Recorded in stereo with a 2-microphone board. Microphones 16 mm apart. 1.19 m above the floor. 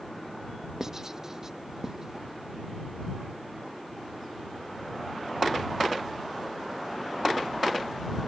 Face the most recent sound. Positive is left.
turn(degrees=-25)  # may be behind; listen again after turning